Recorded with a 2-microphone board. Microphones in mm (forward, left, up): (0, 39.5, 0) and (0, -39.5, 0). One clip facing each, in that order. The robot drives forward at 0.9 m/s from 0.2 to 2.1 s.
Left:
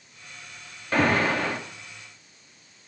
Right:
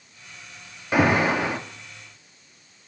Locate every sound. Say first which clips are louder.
0.9 s an alarm: right 2 dB; 10° right (ahead or behind), 0.9 m